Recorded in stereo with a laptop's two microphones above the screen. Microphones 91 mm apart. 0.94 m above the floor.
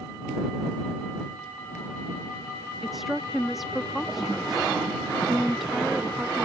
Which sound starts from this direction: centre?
A woman speaking, at 2.8 s.